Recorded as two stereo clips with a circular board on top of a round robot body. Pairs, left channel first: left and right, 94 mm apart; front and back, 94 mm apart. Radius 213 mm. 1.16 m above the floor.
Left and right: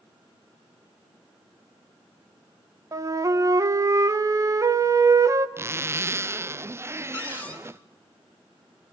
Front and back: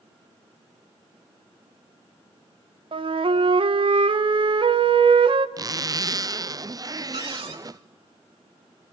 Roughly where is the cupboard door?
Behind.